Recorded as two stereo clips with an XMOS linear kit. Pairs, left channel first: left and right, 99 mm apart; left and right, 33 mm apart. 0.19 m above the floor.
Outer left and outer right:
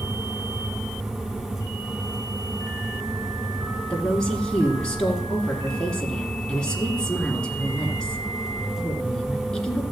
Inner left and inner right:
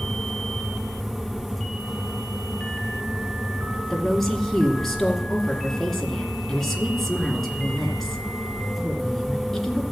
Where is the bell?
I don't hear a bell.